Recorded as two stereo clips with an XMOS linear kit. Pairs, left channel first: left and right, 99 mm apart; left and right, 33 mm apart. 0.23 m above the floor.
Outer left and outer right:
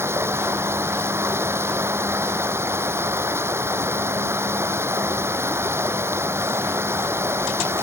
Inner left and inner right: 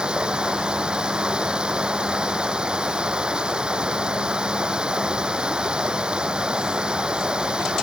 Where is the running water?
25° right (ahead or behind).